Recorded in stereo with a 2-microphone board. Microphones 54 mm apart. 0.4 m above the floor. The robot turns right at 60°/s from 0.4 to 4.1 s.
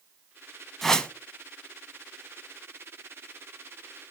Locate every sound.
0.8 s a whoosh: 5° left (ahead or behind), 0.6 m; by 1.1 s 20° left (ahead or behind), 0.6 m